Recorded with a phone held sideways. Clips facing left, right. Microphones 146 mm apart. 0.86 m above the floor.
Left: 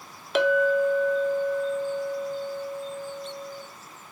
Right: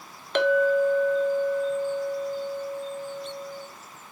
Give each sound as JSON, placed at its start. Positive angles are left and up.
{"t": 0.3, "sound": "a clink", "side_deg": 5, "distance_m": 0.9}